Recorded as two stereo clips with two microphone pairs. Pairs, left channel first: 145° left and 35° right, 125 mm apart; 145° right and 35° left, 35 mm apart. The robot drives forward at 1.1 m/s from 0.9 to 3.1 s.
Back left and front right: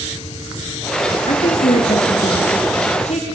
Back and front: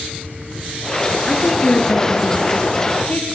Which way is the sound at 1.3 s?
150° left.